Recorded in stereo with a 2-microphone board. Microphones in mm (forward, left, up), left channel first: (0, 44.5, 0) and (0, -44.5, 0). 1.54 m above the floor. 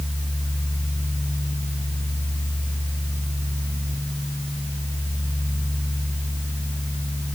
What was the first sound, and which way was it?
Only background noise.